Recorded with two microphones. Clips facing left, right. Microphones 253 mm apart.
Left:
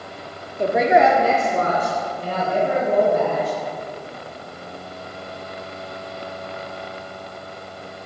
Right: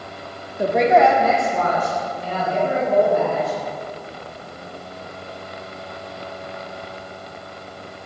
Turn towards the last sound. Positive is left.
turn(degrees=55)  # may be behind; listen again after turning